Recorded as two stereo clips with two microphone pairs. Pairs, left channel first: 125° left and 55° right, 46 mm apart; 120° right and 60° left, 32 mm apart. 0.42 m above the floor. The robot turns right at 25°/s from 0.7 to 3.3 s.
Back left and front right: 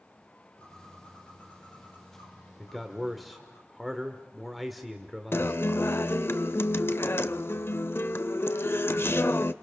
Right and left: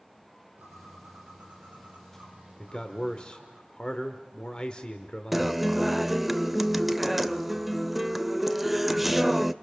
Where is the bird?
60° left, 4.5 m; by 3.6 s 125° left, 4.5 m.